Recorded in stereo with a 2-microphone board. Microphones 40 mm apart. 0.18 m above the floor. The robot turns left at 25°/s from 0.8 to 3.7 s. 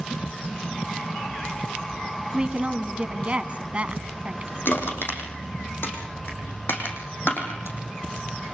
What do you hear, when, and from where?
2.3 s a woman speaking: 50° right, 1.7 m; by 4.5 s 85° right, 1.7 m
4.7 s crushing: 60° left (ahead or behind), 6 m